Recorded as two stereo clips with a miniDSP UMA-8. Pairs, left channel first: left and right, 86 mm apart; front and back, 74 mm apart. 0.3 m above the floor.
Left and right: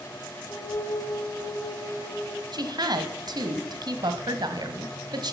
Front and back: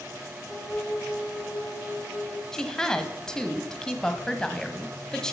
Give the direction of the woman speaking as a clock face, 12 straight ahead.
3 o'clock.